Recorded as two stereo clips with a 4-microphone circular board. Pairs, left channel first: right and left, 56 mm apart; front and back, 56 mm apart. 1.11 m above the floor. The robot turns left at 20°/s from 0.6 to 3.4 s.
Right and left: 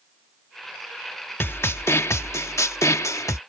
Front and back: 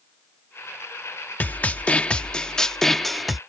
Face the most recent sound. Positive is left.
turn(degrees=-90)